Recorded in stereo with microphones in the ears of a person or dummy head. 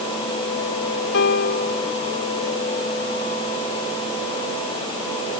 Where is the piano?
60° left (ahead or behind).